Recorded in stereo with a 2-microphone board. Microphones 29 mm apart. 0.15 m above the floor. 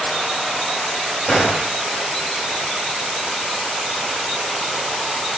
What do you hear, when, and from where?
1.3 s a gunshot: 30° left (ahead or behind), 1.9 m